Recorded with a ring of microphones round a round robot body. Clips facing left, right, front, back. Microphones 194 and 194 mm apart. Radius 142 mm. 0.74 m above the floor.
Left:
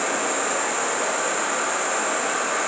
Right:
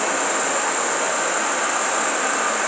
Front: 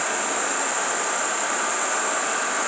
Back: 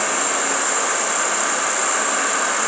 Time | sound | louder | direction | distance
0.0 | an insect | right 2 dB, back 3 dB | 175° left | 5.5 m